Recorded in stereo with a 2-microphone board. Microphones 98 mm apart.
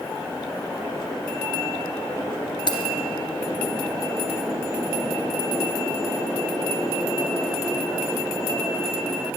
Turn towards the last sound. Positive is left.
turn(degrees=55)  # may be behind; listen again after turning